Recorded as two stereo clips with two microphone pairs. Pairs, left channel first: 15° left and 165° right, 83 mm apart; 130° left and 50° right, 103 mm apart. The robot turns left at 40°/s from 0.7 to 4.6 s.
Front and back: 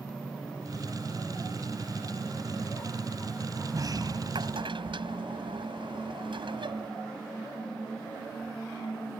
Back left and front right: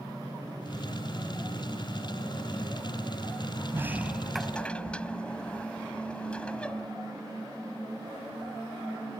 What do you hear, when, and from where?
3.7 s a sliding door: 115° right; by 6.9 s 150° right